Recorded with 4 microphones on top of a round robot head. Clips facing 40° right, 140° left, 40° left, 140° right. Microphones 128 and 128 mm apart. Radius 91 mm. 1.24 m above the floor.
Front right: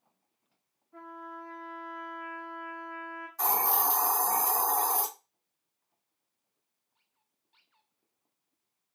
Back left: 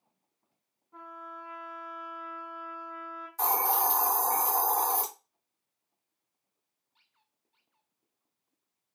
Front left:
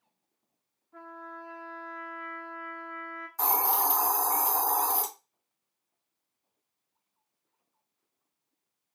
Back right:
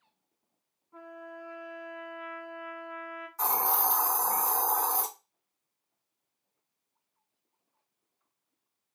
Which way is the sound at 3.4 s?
105° left.